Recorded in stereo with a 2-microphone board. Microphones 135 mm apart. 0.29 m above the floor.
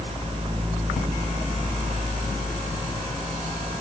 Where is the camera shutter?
No camera shutter in this recording.